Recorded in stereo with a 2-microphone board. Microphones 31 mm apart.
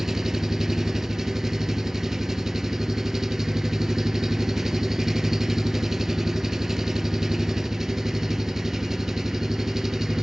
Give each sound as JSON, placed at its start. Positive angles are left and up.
{"t": 0.0, "sound": "an engine running", "side_deg": -10, "distance_m": 0.9}